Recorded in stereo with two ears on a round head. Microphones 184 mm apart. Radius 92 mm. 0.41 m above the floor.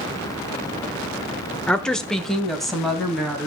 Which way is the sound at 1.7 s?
5° left (ahead or behind).